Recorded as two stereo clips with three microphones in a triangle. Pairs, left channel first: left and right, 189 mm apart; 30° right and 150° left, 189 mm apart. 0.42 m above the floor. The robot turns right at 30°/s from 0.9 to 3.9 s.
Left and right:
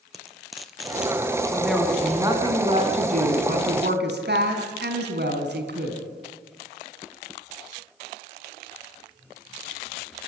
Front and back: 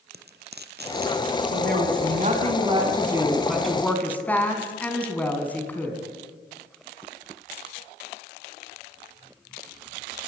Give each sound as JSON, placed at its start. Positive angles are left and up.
{"t": 0.1, "sound": "frying", "azimuth_deg": 180, "distance_m": 1.4}
{"t": 1.5, "sound": "a woman speaking", "azimuth_deg": 175, "distance_m": 4.5}